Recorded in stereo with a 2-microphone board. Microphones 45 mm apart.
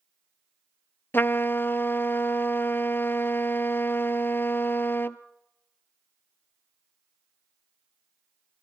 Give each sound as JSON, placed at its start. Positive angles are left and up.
{"t": 1.1, "sound": "a trumpet", "side_deg": 50, "distance_m": 0.5}